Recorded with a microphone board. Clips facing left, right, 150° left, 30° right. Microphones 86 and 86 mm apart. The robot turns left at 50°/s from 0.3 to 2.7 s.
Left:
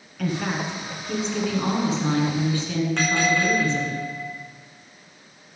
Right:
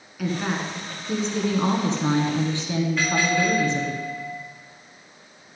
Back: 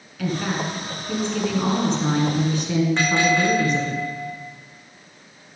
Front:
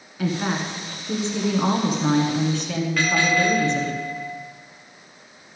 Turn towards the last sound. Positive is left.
turn(degrees=85)